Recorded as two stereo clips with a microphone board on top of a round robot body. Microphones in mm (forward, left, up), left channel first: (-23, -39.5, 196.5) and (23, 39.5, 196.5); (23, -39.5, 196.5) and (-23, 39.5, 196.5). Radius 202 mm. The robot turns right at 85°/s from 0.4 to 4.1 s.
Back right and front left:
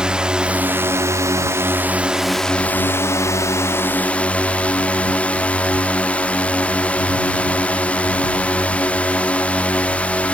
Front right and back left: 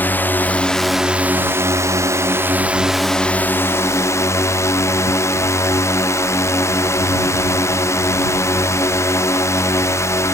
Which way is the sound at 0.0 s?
10° right.